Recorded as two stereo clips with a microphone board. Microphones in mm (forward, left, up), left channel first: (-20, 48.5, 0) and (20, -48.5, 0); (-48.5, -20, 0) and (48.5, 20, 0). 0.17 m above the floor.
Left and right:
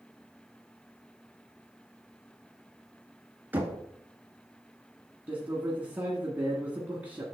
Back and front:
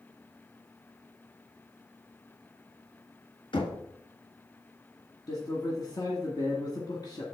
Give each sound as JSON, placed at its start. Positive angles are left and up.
{"t": 3.5, "sound": "knocking", "azimuth_deg": -135, "distance_m": 1.7}
{"t": 5.3, "sound": "a man speaking", "azimuth_deg": -135, "distance_m": 1.6}